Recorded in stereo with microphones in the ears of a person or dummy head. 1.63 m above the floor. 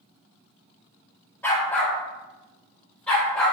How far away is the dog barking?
About 1.4 m.